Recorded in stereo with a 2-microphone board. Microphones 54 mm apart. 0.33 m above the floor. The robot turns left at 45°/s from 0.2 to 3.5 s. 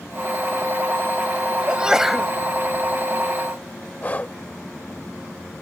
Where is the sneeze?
20° right (ahead or behind); by 2.3 s centre (ahead or behind).